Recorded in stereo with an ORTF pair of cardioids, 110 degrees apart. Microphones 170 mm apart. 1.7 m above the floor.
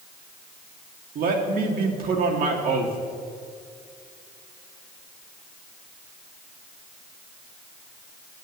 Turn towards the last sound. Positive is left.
turn(degrees=-60)